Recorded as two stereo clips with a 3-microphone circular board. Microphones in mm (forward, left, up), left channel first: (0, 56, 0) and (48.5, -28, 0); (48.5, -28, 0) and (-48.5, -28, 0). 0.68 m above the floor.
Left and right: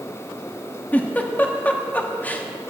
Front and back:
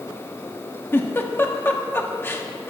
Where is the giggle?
55° left, 1.2 m.